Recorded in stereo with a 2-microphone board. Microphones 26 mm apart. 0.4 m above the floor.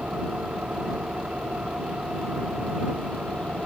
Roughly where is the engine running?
Right.